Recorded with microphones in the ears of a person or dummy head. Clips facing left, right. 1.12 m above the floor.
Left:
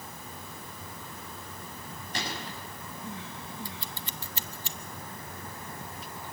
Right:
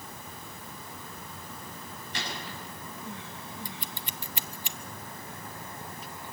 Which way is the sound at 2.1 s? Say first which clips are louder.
Left 2 dB; 40° left (ahead or behind).